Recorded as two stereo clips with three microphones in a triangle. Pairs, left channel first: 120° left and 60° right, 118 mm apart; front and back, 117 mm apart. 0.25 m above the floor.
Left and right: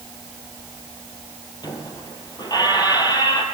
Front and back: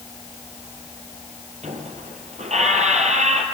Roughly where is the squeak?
Behind.